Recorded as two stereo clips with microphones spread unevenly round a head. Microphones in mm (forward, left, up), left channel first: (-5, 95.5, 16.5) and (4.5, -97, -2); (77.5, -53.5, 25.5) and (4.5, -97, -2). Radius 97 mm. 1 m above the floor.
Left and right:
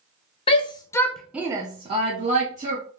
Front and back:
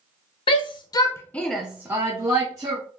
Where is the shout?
35° left, 0.7 m; by 2.8 s 130° right, 1.0 m.